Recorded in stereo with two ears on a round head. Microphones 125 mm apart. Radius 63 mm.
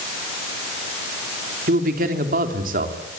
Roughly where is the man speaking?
Right.